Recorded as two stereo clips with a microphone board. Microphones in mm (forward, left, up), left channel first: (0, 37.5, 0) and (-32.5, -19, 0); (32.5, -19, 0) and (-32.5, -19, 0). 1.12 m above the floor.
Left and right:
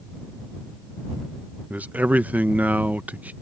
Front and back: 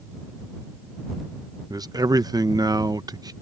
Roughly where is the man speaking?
Behind.